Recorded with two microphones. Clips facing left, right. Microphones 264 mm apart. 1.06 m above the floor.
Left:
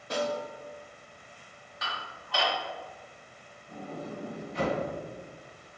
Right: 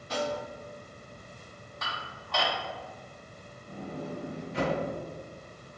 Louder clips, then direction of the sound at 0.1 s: Left 1 dB; 55° left (ahead or behind).